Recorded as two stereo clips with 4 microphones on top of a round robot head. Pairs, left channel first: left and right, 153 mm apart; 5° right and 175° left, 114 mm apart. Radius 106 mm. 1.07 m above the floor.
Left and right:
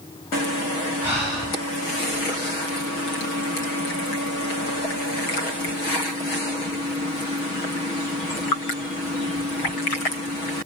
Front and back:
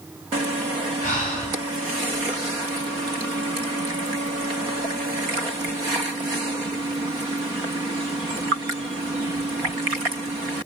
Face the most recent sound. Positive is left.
turn(degrees=-15)